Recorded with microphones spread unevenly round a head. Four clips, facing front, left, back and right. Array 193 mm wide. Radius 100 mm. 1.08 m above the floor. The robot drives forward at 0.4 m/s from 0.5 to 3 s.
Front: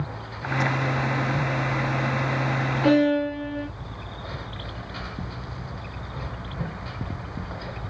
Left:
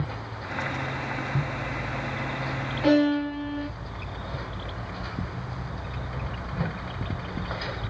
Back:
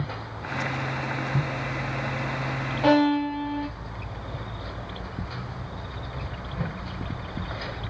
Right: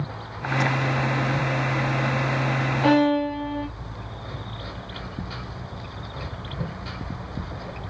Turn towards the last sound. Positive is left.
turn(degrees=-150)